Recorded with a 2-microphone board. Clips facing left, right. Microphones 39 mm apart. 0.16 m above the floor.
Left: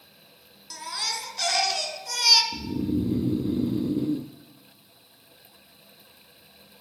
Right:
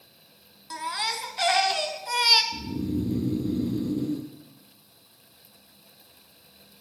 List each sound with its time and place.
0.7 s a baby crying: 25° right (ahead or behind), 0.7 m
2.5 s snoring: 20° left (ahead or behind), 0.7 m